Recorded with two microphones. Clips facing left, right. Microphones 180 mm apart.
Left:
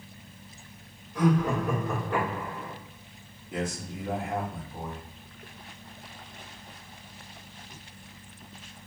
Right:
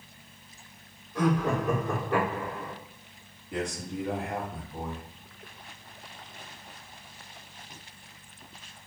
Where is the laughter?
20° right (ahead or behind), 1.8 m.